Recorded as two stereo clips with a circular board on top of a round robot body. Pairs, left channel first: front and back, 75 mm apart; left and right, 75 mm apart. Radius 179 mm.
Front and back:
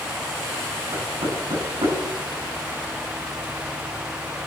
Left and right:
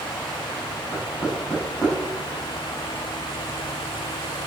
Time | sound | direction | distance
0.9 | knocking | 165° left | 6.5 m